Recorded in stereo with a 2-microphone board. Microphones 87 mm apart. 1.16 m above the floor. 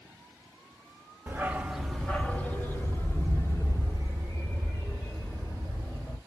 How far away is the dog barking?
About 0.6 m.